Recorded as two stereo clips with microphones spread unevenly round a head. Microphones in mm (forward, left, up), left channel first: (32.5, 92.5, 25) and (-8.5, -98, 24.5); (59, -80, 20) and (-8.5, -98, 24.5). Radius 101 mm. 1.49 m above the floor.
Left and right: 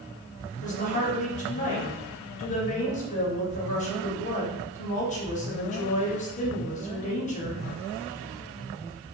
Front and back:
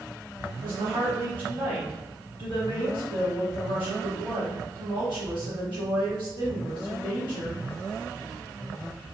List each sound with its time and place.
0.6 s a woman speaking: 135° left, 0.9 m